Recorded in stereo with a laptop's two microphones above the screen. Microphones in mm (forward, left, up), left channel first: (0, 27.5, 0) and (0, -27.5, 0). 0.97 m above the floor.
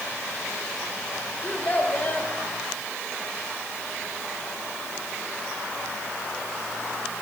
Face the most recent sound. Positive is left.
turn(degrees=30)  # may be behind; listen again after turning